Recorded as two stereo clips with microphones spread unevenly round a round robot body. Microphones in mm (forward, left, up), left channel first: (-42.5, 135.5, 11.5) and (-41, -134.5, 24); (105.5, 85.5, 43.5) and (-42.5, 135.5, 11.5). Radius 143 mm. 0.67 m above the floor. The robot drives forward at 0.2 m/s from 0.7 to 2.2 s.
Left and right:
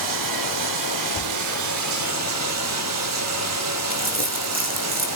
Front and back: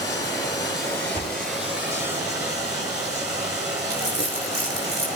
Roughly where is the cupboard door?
Left.